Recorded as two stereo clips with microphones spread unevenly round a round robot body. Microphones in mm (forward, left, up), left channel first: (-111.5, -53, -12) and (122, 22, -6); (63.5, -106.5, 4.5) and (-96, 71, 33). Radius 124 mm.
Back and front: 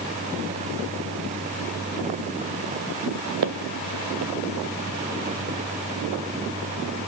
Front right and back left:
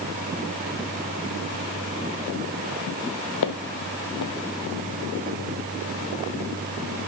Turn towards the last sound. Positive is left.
turn(degrees=-20)